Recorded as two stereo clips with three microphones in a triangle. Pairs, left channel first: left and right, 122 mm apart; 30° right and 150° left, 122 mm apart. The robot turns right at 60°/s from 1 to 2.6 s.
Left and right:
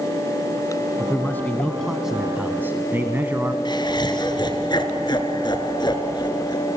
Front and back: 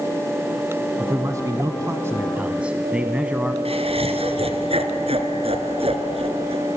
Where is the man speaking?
125° left, 1.3 m; by 3.5 s 140° right, 1.3 m.